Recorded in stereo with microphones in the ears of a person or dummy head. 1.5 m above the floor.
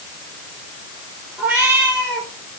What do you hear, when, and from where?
1.4 s a cat meowing: 15° right (ahead or behind), 1.6 m